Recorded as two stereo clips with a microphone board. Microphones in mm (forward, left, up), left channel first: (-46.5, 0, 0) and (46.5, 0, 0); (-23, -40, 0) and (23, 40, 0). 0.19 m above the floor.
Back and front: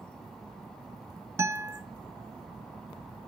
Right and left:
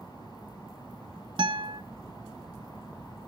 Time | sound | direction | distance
1.4 | a guitar | 60° left | 1.3 m